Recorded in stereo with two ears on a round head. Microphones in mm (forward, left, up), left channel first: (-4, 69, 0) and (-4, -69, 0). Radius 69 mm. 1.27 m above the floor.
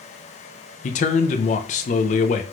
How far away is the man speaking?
About 0.5 m.